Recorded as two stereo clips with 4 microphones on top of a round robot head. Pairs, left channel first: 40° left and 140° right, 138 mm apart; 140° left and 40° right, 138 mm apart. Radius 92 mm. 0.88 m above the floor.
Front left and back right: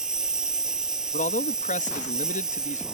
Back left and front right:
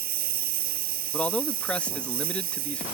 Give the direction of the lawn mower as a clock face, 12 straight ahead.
2 o'clock.